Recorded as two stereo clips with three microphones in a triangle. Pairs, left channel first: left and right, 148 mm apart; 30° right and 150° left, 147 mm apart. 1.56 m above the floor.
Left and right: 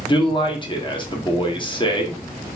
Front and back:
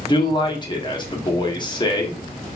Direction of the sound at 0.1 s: 30° left.